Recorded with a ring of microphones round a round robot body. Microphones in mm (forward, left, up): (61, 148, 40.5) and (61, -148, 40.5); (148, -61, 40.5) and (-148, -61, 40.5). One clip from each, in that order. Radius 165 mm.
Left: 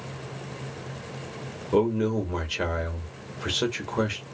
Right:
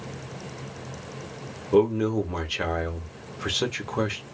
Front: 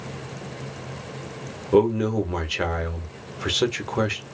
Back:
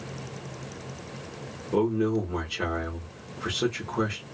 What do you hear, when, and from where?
1.7 s a man speaking: straight ahead, 1.1 m